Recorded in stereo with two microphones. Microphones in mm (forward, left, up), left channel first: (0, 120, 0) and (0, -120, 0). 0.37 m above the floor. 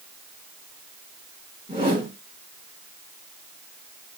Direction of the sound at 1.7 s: 20° right (ahead or behind).